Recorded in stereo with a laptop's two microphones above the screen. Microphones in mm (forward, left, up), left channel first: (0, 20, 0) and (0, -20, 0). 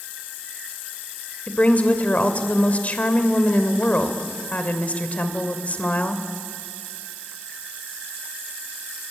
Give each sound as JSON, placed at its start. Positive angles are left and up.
{"t": 1.5, "sound": "a woman speaking", "side_deg": 35, "distance_m": 3.0}